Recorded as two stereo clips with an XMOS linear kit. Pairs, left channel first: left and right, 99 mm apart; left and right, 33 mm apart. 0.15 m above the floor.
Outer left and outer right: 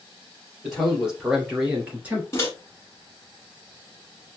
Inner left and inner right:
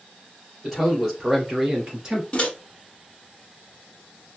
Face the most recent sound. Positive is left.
turn(degrees=30)  # may be behind; listen again after turning